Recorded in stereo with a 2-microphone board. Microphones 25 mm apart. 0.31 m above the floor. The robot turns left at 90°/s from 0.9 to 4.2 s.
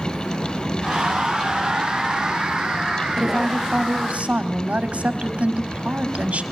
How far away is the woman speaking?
About 1.6 m.